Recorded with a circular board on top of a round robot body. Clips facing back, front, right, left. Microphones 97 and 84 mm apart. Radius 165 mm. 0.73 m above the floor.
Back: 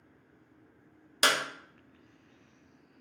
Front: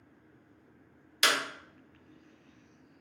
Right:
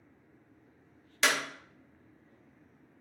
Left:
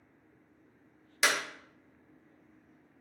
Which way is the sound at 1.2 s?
170° left.